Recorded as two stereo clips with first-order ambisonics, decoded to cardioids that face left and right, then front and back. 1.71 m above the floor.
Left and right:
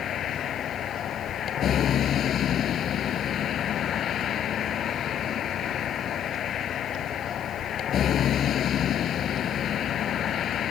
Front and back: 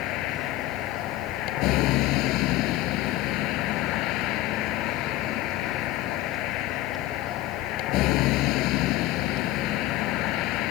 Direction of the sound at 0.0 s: 35° left.